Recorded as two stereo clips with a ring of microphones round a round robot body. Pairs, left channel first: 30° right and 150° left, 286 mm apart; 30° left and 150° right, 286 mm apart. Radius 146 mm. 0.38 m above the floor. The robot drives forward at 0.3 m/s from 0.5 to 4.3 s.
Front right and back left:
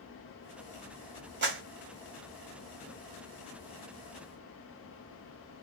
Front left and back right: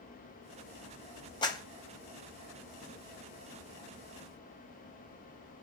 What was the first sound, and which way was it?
A clap, 105° left.